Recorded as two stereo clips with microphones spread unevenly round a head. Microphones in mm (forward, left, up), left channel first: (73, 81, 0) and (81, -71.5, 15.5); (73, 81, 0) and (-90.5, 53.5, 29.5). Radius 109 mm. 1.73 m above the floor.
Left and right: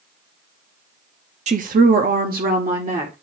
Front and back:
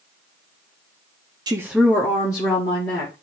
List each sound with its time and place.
1.5 s a woman speaking: 115° right, 0.5 m; by 3.1 s 60° right, 1.9 m